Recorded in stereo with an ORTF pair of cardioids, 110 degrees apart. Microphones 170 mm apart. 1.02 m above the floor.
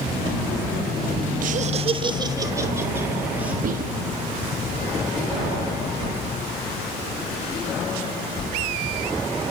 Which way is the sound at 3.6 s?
55° right.